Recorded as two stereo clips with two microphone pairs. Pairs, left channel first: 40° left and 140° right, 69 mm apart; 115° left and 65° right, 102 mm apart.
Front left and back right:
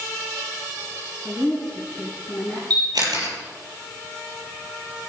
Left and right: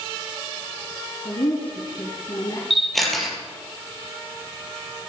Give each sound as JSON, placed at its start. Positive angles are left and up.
{"t": 1.2, "sound": "a woman speaking", "azimuth_deg": 145, "distance_m": 6.0}
{"t": 2.7, "sound": "a camera shutter", "azimuth_deg": -160, "distance_m": 5.0}